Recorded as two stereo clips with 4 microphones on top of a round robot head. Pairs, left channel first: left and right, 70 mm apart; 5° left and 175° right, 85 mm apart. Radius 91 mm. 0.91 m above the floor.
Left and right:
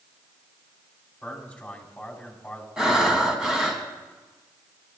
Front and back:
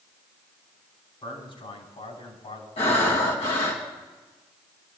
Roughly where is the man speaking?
Ahead.